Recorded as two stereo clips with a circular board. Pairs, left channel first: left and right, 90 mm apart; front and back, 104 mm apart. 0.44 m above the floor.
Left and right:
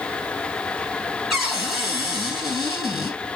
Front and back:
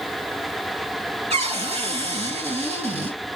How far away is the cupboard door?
About 2.5 m.